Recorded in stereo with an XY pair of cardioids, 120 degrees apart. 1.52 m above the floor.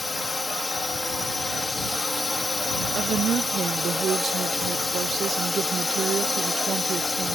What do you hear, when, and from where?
0.0 s a drone: 15° left
3.0 s a woman speaking: 45° right